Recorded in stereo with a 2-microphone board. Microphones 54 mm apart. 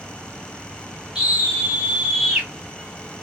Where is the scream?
10° right (ahead or behind), 1.4 m.